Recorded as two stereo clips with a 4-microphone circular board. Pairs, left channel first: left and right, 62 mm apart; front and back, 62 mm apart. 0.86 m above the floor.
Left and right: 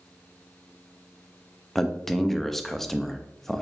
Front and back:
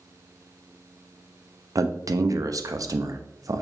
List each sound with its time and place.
1.8 s a man speaking: 175° left, 0.5 m